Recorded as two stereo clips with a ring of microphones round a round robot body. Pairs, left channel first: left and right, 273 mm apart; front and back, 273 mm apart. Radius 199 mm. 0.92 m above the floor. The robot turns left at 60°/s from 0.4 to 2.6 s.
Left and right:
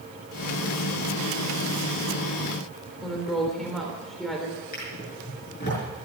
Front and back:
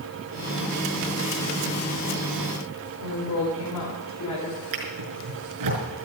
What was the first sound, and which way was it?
A woman speaking, straight ahead.